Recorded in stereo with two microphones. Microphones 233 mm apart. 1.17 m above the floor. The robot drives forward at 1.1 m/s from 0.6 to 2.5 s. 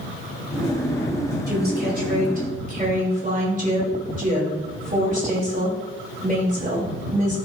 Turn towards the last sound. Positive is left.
turn(degrees=-35)  # may be behind; listen again after turning